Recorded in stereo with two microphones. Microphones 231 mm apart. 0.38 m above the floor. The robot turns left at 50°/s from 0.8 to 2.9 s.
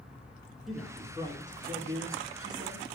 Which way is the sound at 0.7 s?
Straight ahead.